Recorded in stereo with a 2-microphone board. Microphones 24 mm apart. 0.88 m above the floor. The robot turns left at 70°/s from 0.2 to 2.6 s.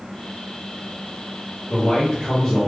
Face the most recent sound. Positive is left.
turn(degrees=30)